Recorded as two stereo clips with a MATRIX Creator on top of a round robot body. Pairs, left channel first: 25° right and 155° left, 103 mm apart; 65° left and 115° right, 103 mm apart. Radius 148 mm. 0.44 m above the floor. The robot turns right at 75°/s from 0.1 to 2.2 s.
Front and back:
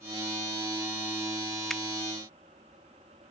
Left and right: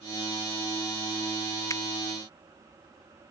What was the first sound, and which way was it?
A finger snap, 60° left.